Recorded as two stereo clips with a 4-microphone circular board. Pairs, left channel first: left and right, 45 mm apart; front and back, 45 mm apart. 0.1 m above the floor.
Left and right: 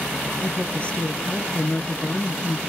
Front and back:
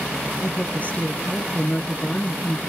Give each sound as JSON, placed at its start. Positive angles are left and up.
{"t": 0.4, "sound": "a woman speaking", "azimuth_deg": 40, "distance_m": 2.0}